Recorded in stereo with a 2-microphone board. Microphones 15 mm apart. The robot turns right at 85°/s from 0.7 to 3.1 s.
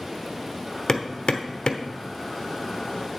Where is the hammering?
50° left (ahead or behind), 1.0 m; by 1.9 s 45° left (ahead or behind), 1.0 m.